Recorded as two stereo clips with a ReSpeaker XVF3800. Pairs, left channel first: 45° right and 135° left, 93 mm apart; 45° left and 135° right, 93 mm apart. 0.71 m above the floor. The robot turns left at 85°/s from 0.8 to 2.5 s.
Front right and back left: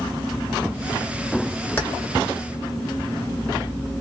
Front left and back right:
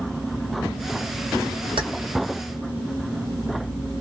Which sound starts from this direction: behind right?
Keys jangling, at 1.8 s.